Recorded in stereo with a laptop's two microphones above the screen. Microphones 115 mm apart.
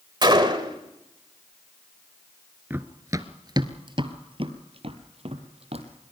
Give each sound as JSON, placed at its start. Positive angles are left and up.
{"t": 0.2, "sound": "a gunshot", "side_deg": -40, "distance_m": 1.9}
{"t": 2.7, "sound": "running footsteps", "side_deg": -20, "distance_m": 1.0}